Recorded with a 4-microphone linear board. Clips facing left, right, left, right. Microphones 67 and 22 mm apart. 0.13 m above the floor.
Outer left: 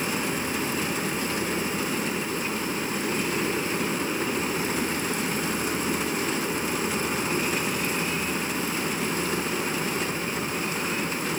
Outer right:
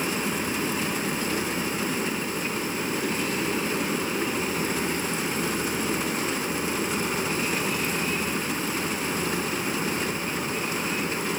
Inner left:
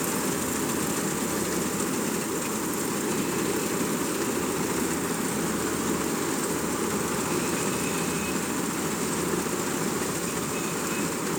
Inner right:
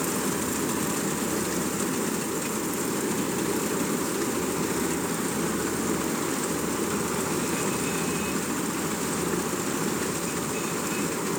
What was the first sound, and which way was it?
Only background noise.